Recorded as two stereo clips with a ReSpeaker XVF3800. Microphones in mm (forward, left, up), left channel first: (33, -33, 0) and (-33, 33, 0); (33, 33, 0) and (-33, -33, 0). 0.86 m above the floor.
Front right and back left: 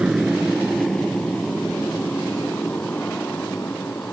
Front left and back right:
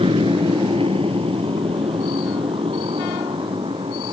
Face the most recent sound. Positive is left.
turn(degrees=-115)